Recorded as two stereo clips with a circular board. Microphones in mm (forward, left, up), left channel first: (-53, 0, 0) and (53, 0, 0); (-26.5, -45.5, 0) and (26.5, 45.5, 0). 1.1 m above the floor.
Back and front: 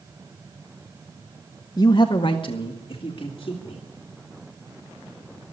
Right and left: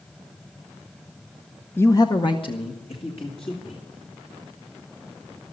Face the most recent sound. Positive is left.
turn(degrees=-145)